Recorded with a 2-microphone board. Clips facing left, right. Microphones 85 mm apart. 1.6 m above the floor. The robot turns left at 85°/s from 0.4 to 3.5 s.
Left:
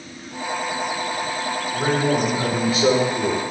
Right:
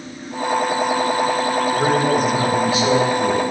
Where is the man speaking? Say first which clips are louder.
Right 1 dB; 140° right, 2 m; by 3.4 s 75° left, 2 m.